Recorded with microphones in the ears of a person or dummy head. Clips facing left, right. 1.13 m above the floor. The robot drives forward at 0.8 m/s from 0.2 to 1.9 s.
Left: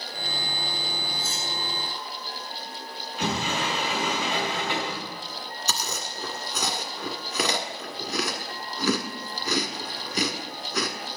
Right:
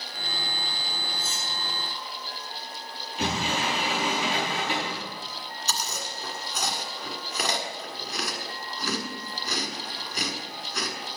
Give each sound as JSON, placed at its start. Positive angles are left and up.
{"t": 1.2, "sound": "cutlery clinking", "side_deg": -20, "distance_m": 4.5}
{"t": 3.2, "sound": "a sliding door", "side_deg": -25, "distance_m": 6.0}
{"t": 5.7, "sound": "chewing", "side_deg": 80, "distance_m": 1.7}